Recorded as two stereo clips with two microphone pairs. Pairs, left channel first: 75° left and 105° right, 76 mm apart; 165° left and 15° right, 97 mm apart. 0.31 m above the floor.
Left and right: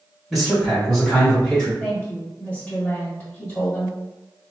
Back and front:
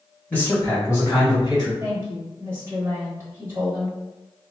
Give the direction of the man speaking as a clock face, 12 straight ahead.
6 o'clock.